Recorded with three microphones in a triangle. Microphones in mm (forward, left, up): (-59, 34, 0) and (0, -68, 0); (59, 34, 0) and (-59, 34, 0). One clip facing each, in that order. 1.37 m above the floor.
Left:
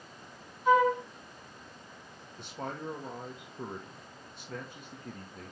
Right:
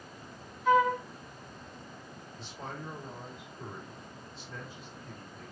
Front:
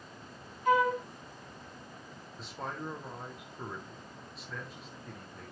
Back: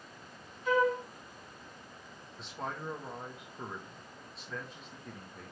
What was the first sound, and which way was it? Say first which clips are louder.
A flute: left 1 dB, front 2 dB; 35° left.